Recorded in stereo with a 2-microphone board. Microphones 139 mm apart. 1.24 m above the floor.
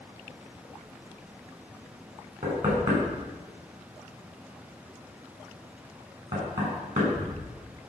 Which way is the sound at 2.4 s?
60° right (ahead or behind).